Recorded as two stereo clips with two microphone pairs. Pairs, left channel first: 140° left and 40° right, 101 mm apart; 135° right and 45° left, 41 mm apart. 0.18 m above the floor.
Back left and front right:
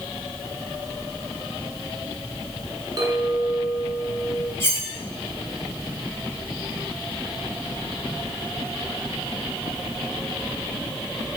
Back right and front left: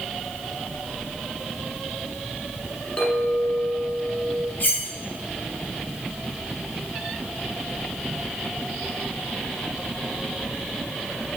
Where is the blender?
I don't hear a blender.